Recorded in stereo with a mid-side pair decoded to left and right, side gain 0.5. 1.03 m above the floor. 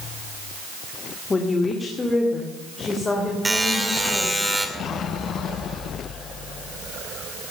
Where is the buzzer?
10° right, 2.5 m.